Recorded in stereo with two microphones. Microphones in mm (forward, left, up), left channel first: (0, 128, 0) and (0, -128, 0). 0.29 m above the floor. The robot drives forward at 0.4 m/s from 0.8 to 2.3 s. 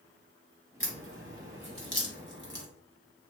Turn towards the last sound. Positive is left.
turn(degrees=-50)  # may be behind; listen again after turning